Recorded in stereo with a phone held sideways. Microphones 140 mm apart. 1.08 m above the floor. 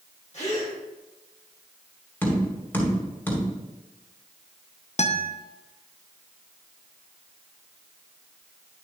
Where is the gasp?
55° left (ahead or behind), 4 m.